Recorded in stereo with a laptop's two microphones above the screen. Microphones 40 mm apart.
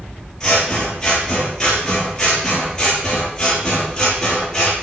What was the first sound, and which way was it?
Scissors, 15° left (ahead or behind).